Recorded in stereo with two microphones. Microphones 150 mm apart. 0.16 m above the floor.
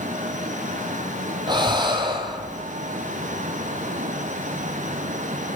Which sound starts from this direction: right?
Breathing, at 1.5 s.